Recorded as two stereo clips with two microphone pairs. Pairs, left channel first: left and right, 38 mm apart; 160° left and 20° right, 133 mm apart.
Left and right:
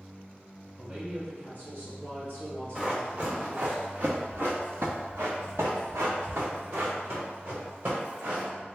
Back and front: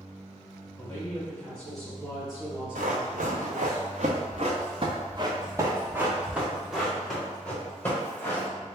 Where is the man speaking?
135° right, 1.9 m; by 3.8 s 85° right, 2.5 m.